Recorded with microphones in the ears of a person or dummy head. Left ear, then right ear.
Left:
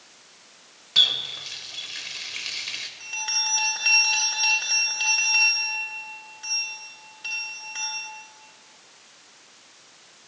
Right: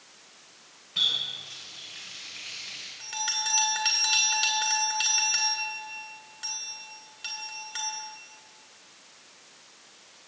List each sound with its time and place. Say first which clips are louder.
0.9 s a running tap: left 6 dB; 40° left (ahead or behind), 0.9 m
3.0 s a bell: left 3 dB; 20° right (ahead or behind), 1.5 m